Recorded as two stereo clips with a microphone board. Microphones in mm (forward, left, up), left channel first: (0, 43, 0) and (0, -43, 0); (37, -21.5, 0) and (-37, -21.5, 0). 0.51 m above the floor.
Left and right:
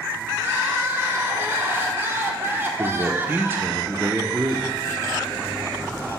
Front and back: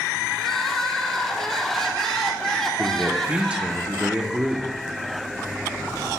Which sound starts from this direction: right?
Crying, at 0.4 s.